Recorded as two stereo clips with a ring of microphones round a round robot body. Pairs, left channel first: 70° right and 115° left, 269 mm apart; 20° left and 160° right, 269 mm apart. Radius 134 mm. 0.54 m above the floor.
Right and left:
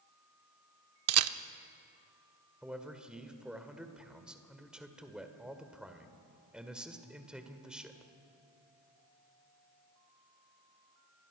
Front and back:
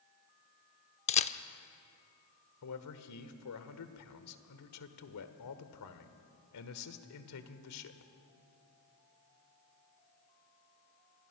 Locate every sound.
1.1 s a camera shutter: 85° left, 0.7 m
2.6 s a man speaking: 25° left, 1.8 m